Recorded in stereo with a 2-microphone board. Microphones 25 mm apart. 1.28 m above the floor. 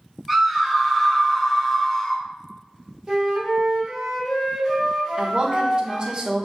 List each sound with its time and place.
0.3 s a scream: 5° right (ahead or behind), 1.4 m; by 2.2 s 30° left (ahead or behind), 0.5 m
3.1 s a flute: 20° right (ahead or behind), 1.1 m
5.2 s a woman speaking: 30° right (ahead or behind), 0.6 m